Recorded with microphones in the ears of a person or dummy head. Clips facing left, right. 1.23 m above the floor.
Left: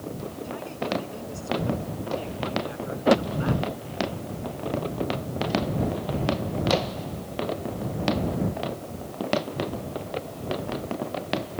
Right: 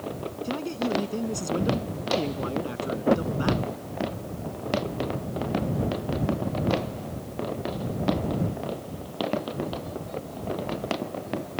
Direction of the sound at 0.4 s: 55° right (ahead or behind).